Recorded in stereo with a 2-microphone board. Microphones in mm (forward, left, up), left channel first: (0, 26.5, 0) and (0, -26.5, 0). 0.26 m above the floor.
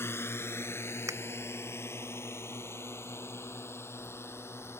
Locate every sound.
0.0 s a drone: 50° left (ahead or behind)
1.1 s a finger snap: 75° right (ahead or behind)